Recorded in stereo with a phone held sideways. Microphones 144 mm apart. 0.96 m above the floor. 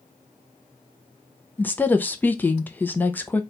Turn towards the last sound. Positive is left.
turn(degrees=10)  # may be behind; listen again after turning